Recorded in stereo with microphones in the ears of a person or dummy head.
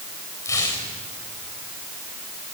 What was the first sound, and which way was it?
Tearing paper, 15° left (ahead or behind).